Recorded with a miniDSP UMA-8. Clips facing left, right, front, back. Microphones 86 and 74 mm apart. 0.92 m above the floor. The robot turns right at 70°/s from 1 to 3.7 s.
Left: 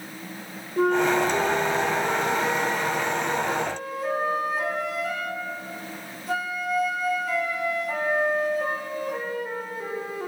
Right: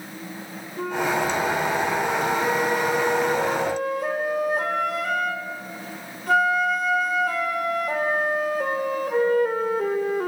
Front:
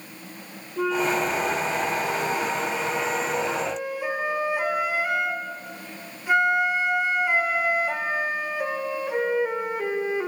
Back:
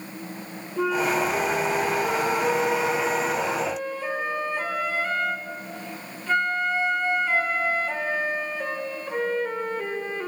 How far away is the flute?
About 2 m.